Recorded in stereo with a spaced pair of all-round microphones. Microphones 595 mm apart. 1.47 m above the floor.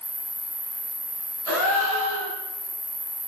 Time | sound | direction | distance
0.0 | an insect | 70° left (ahead or behind) | 3.5 m
1.5 | a gasp | 75° right (ahead or behind) | 3 m